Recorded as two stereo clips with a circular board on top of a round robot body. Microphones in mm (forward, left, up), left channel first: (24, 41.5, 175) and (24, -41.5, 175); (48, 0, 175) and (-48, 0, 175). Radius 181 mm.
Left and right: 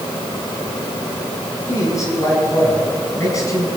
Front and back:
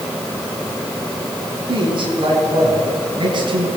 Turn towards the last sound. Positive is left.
turn(degrees=140)